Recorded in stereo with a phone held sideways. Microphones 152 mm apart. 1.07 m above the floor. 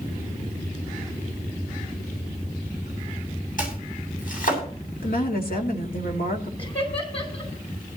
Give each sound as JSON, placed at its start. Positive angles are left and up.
{"t": 3.6, "sound": "chopping", "side_deg": 65, "distance_m": 8.0}
{"t": 5.0, "sound": "a woman speaking", "side_deg": 75, "distance_m": 2.0}
{"t": 6.6, "sound": "laughter", "side_deg": 40, "distance_m": 5.5}